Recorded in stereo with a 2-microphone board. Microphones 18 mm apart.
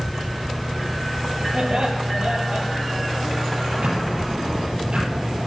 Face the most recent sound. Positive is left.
turn(degrees=-60)  # may be behind; listen again after turning